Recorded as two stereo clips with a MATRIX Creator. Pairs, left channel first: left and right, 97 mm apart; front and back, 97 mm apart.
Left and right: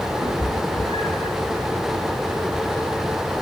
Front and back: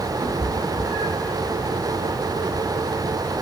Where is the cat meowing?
105° left, 5.5 m.